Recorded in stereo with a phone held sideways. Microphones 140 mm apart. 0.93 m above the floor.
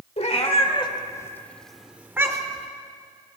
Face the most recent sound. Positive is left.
turn(degrees=-30)  # may be behind; listen again after turning